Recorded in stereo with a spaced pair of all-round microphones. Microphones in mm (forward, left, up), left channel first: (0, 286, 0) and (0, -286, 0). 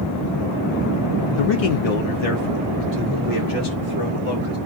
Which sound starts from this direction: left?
A man speaking, at 1.4 s.